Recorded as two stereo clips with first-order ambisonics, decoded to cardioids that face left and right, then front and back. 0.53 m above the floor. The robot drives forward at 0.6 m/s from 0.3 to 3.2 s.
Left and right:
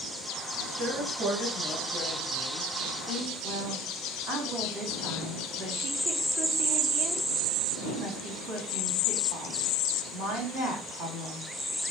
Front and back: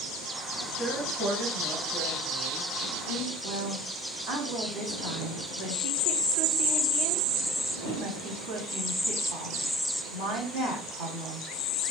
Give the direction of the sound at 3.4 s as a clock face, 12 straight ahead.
5 o'clock.